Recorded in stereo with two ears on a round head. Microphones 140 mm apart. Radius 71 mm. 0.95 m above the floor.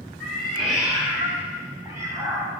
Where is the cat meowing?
5° left (ahead or behind), 3 m; by 2.5 s 25° right (ahead or behind), 2.5 m.